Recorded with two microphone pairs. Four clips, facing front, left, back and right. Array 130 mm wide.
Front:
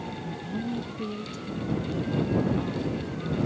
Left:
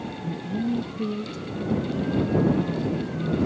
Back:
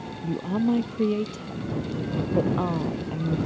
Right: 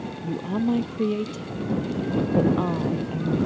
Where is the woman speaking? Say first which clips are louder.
Right 3 dB, back 11 dB; 140° right.